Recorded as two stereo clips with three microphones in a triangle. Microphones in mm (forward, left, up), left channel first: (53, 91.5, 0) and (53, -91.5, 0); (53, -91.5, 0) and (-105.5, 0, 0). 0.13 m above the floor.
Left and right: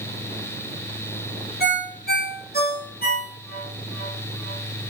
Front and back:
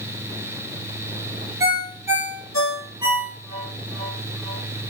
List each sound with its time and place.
1.6 s a ringtone: 80° left, 2 m